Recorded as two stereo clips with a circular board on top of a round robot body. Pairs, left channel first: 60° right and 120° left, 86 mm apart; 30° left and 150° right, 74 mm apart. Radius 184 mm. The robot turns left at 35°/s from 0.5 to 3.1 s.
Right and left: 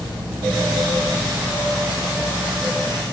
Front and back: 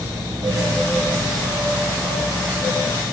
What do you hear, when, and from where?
Only background noise.